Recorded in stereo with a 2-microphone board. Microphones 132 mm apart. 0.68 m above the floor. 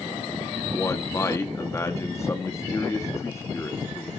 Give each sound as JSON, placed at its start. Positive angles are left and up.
{"t": 0.7, "sound": "a man speaking", "side_deg": 20, "distance_m": 0.9}